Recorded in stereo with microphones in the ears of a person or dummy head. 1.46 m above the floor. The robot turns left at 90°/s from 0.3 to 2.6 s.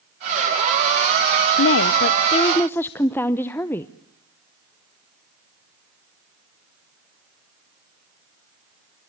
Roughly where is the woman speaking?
Left.